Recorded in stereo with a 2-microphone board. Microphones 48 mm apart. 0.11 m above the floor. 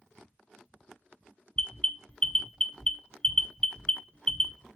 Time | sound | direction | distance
1.6 | an alarm | 20° left (ahead or behind) | 0.8 m